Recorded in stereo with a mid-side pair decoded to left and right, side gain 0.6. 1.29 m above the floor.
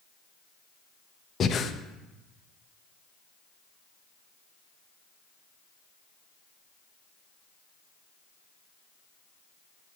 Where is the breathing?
40° left, 0.7 m.